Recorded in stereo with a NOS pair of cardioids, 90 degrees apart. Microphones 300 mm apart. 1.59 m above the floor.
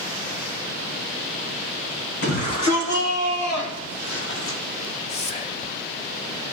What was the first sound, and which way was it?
A shout, 65° left.